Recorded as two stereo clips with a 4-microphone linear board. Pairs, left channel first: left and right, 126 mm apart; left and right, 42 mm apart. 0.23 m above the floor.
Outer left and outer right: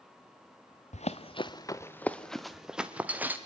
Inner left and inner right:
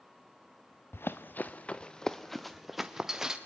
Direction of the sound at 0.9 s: 65° left (ahead or behind).